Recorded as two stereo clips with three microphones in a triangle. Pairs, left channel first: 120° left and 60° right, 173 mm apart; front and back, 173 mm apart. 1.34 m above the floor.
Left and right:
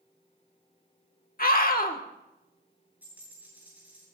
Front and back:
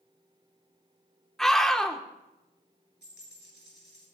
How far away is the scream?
About 1.5 m.